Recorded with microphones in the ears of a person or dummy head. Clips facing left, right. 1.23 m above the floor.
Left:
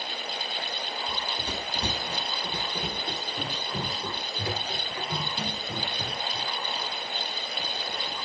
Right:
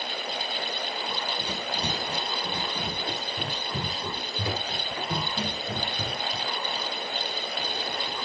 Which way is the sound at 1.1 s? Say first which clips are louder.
Right 2 dB; 35° left (ahead or behind).